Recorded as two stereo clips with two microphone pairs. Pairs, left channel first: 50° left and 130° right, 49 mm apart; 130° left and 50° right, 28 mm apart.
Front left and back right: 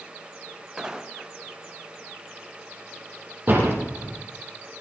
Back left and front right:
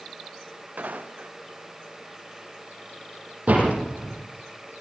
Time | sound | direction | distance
0.8 | footsteps | 50° right | 2 m
3.5 | a door slam | 75° right | 7.5 m